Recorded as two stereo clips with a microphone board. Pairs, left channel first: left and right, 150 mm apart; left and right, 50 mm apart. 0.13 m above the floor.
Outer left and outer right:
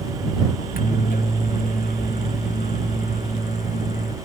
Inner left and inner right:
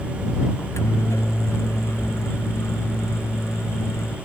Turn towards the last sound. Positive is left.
turn(degrees=70)  # may be behind; listen again after turning